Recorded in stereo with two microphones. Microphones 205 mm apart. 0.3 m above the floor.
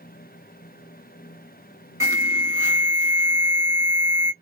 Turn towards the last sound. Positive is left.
turn(degrees=-15)  # may be behind; listen again after turning